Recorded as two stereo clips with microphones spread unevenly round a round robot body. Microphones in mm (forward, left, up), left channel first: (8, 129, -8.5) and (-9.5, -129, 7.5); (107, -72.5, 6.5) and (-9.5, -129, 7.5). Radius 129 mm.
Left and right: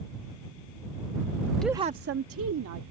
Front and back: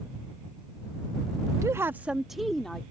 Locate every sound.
1.6 s a woman speaking: 165° left; by 2.8 s 60° right